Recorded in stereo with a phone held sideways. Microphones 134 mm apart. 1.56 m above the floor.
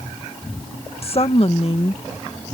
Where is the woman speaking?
45° left (ahead or behind).